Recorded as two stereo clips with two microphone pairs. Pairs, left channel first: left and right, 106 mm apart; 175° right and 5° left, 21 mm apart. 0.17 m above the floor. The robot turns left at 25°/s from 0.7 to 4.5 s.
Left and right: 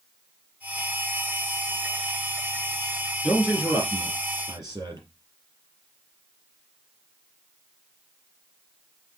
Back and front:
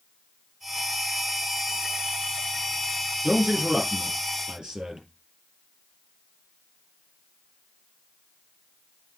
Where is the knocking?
I don't hear knocking.